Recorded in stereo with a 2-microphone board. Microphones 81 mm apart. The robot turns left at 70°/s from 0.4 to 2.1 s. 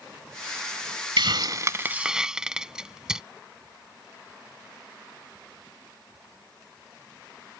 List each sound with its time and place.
1.2 s a hiss: 75° right (ahead or behind); by 3.2 s 10° right (ahead or behind)